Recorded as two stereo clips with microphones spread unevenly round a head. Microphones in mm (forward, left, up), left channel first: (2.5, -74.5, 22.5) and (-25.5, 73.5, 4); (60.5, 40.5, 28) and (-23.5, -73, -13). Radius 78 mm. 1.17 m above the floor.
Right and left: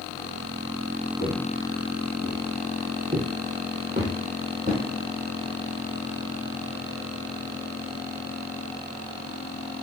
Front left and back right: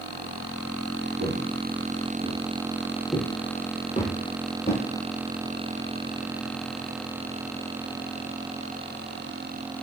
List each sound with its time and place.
1.2 s footsteps: 120° right, 1.5 m; by 4.8 s 40° left, 1.9 m